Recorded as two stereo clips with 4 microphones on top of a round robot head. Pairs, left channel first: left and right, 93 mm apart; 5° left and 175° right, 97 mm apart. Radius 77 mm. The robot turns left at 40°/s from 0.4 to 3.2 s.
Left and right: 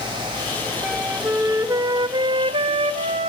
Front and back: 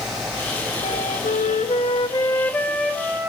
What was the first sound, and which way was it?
A flute, 5° right.